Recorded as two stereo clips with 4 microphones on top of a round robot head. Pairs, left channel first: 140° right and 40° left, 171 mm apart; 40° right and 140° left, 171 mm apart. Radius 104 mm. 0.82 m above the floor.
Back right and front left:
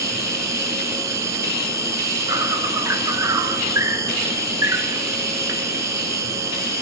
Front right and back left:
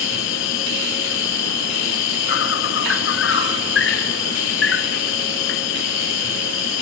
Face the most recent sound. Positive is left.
turn(degrees=-30)